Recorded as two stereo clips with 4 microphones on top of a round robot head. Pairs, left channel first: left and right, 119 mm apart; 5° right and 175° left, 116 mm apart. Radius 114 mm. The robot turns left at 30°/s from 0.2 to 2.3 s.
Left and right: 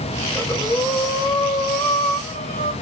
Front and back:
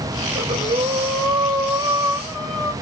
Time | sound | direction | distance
0.3 | breathing | 150° left | 2.0 m